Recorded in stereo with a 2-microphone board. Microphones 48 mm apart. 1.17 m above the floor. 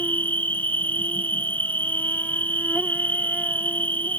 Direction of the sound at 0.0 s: 40° left (ahead or behind).